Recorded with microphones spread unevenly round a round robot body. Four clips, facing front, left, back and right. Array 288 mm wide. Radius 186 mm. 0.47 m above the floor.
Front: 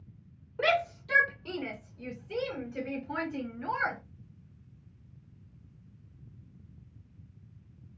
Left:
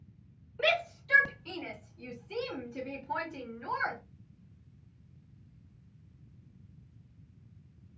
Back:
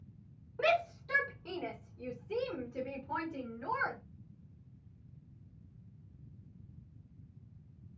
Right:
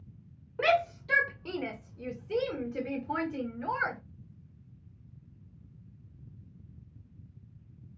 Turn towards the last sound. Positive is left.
turn(degrees=-115)